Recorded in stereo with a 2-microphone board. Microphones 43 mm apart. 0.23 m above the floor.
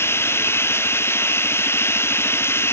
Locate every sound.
0.0 s running water: 75° left (ahead or behind)